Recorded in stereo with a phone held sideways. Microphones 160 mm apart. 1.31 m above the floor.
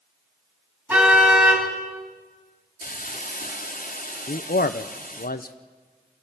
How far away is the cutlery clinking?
I don't hear cutlery clinking.